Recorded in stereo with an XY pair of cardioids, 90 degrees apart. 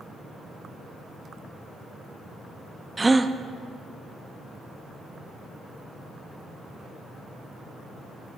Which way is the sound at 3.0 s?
20° right.